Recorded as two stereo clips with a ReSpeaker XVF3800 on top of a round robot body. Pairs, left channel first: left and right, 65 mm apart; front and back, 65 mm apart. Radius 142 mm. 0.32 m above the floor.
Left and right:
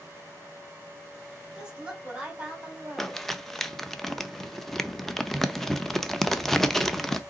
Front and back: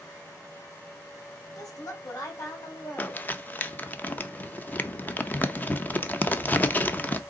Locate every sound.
1.6 s a woman speaking: 15° right, 2.5 m
3.0 s crumpling: 10° left, 0.8 m